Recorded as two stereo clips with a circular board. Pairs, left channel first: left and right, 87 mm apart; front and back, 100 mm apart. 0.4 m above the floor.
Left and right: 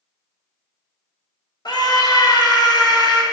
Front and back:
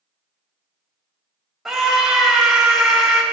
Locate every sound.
1.6 s a scream: 95° left, 1.8 m